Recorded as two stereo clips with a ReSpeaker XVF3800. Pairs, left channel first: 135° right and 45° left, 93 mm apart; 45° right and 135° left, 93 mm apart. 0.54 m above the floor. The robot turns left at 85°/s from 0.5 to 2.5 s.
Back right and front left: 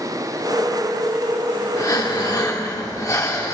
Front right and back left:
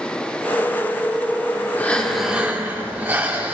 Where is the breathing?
100° right, 1.5 m; by 3.5 s 165° right, 1.5 m.